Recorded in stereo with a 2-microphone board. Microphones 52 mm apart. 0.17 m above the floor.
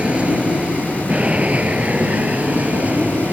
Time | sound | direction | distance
0.0 | an aircraft | 20° right (ahead or behind) | ?